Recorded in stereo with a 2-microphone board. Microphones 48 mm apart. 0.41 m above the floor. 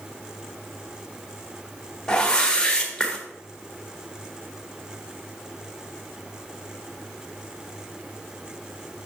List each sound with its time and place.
2.1 s a whoosh: 15° left (ahead or behind), 1.4 m